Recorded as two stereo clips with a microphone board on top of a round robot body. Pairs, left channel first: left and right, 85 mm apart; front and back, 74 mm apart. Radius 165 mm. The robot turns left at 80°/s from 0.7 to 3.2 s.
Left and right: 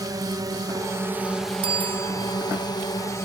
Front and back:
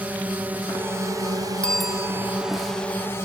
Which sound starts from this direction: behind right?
A drone, at 0.0 s.